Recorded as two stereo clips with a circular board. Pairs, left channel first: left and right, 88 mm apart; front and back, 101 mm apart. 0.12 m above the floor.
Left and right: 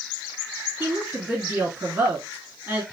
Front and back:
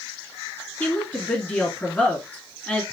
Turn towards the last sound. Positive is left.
turn(degrees=-60)